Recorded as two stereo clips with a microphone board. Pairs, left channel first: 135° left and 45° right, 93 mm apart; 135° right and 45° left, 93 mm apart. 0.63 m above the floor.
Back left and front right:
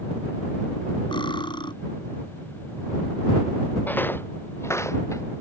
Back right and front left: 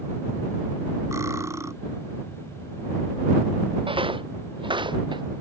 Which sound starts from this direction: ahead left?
Footsteps, at 3.9 s.